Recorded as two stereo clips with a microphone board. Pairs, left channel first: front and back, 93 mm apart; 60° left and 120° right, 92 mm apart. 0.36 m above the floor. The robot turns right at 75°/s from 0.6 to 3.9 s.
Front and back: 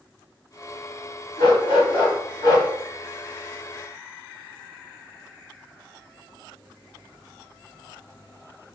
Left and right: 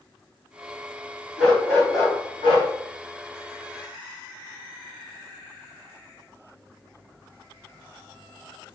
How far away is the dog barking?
About 1.6 m.